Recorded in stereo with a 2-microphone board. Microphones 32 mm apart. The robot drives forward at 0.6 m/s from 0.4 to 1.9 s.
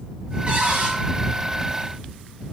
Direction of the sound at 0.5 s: 55° right (ahead or behind).